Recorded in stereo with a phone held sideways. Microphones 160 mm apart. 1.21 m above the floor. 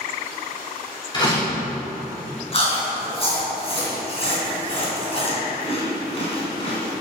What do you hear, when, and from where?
1.1 s a door slam: 30° left (ahead or behind), 3 m
2.5 s chewing: 40° left (ahead or behind), 3 m